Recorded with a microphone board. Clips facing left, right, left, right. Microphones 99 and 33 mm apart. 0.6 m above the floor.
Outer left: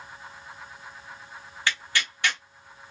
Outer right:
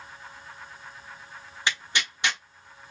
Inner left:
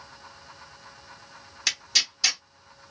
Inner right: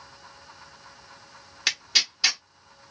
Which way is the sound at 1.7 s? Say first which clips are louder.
Even, inner right 1 dB; 20° right (ahead or behind).